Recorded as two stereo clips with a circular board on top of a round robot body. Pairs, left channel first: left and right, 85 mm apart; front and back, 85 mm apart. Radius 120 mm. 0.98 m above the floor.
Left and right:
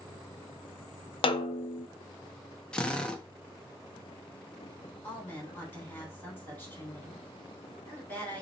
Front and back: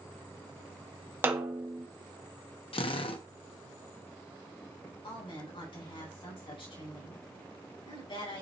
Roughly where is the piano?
No piano in this recording.